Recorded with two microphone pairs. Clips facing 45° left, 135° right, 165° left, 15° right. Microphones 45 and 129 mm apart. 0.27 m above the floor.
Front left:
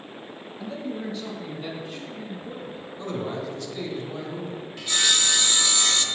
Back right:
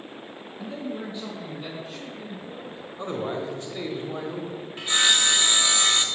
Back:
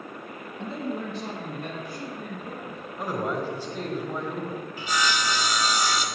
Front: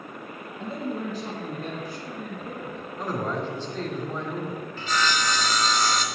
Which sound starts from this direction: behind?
A man speaking, at 0.6 s.